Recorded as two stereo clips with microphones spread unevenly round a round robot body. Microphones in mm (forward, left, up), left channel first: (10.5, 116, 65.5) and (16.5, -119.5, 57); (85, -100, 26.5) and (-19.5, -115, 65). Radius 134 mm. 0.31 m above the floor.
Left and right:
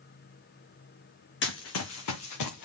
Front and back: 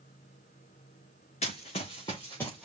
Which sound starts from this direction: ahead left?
Running footsteps, at 1.4 s.